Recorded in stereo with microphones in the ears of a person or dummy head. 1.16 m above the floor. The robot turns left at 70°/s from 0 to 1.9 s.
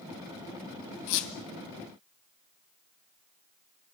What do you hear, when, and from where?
1.1 s a squeak: 60° left (ahead or behind), 1.7 m